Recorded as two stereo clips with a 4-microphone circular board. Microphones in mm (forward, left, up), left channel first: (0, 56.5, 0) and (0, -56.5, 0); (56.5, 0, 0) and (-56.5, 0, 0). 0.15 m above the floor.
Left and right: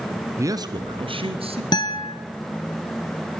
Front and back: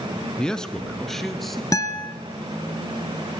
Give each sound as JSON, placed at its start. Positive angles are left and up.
{"t": 0.4, "sound": "a man speaking", "azimuth_deg": -75, "distance_m": 1.2}
{"t": 1.7, "sound": "a guitar", "azimuth_deg": 50, "distance_m": 1.7}